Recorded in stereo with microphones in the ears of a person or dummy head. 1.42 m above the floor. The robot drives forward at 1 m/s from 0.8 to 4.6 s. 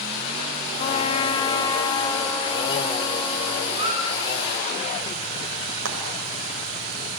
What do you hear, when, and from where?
0.8 s a trumpet: 45° left (ahead or behind), 1.4 m; by 3.6 s 15° left (ahead or behind), 4 m
3.7 s a squeak: 35° right (ahead or behind), 5.5 m
5.8 s frying: 85° right, 6 m